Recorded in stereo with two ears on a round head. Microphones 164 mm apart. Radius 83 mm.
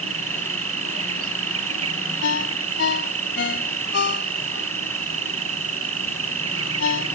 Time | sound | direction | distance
0.0 | an insect | 80° right | ?
2.2 | a ringtone | 65° left (ahead or behind) | ?